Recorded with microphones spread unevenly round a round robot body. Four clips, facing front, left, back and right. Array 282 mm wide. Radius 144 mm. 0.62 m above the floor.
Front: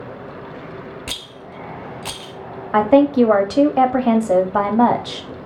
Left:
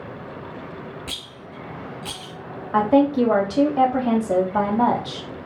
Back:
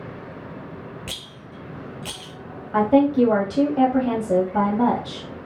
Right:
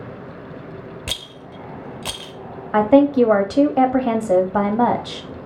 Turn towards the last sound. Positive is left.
turn(degrees=-30)